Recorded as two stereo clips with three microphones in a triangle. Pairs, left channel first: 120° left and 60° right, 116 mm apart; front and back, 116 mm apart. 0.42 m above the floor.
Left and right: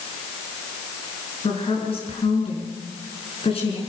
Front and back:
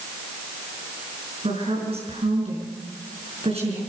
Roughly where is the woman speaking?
Behind left.